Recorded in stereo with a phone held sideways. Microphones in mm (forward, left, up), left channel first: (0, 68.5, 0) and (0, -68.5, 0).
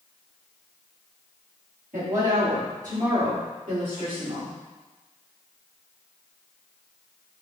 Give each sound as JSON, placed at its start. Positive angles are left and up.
{"t": 1.9, "sound": "a woman speaking", "side_deg": -70, "distance_m": 1.4}